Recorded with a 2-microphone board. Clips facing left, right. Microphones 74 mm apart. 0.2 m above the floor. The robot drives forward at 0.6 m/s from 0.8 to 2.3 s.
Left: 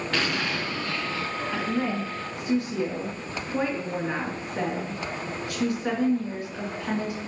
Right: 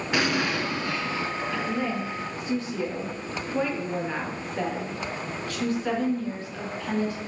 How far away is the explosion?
About 0.9 m.